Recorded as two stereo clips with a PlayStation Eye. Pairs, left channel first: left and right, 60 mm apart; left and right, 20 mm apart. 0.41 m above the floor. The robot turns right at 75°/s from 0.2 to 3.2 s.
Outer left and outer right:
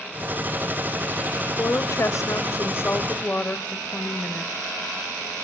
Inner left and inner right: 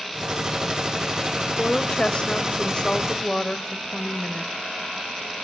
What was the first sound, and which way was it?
A woman speaking, 35° left.